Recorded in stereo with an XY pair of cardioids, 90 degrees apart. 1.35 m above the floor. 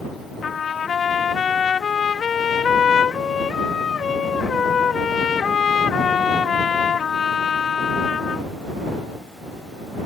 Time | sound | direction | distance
0.4 | a trumpet | 55° left | ?